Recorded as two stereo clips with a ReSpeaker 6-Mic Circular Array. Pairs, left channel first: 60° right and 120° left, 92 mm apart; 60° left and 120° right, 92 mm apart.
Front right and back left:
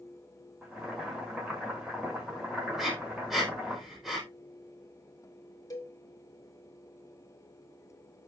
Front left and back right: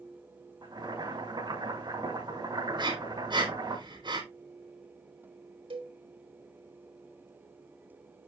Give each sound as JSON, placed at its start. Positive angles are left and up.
{"t": 0.6, "sound": "boiling", "azimuth_deg": -160, "distance_m": 7.0}
{"t": 2.8, "sound": "breathing", "azimuth_deg": -155, "distance_m": 5.0}
{"t": 5.7, "sound": "a cowbell", "azimuth_deg": -110, "distance_m": 2.0}